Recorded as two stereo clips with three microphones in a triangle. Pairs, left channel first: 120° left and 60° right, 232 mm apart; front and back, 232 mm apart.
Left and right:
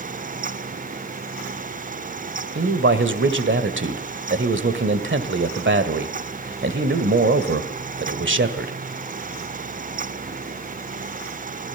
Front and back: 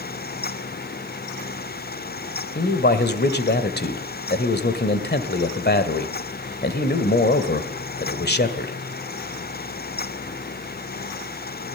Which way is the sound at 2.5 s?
35° right.